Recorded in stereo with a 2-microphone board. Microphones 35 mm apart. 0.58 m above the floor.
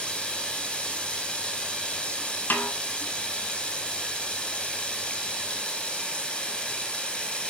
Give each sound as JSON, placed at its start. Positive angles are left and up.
{"t": 0.0, "sound": "running water", "side_deg": 30, "distance_m": 2.0}
{"t": 2.5, "sound": "a snare drum", "side_deg": 55, "distance_m": 2.0}